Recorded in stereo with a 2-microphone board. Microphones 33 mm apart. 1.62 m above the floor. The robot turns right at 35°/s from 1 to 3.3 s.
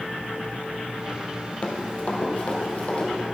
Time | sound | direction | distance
1.6 | running footsteps | 35° left (ahead or behind) | 2.0 m